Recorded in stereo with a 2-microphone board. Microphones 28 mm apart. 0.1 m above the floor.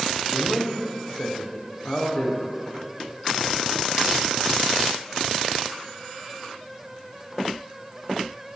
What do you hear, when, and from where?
0.3 s a man speaking: 35° left (ahead or behind), 8 m